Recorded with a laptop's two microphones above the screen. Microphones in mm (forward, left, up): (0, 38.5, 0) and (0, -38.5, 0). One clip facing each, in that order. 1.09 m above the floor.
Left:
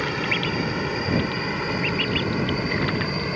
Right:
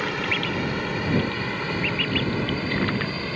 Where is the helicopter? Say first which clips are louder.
Left 1 dB; centre (ahead or behind); by 3.4 s 15° left (ahead or behind).